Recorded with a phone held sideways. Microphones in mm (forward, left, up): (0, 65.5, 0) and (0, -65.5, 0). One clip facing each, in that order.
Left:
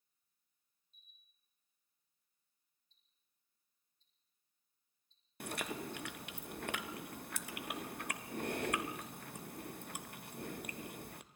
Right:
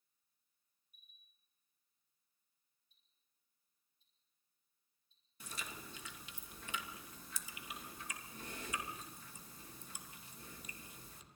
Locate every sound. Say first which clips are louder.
0.9 s a camera shutter: even; 30° left (ahead or behind), 2.5 m
2.9 s ticking: even; 10° right (ahead or behind), 4.5 m
5.4 s chewing: left 9 dB; 65° left (ahead or behind), 1.0 m